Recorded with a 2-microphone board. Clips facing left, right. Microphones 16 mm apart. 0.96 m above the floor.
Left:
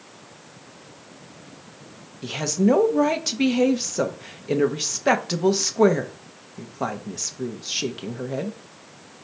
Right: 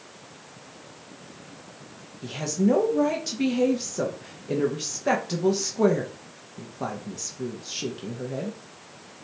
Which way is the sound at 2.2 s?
25° left (ahead or behind).